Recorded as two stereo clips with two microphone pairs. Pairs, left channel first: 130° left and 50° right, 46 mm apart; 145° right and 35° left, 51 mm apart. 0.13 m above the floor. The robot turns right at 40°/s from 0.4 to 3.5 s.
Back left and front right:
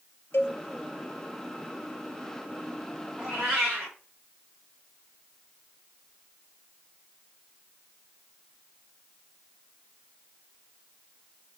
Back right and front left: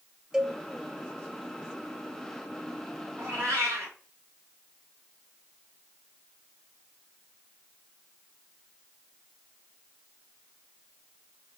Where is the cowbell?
115° left, 0.5 m; by 0.6 s 120° left, 0.5 m.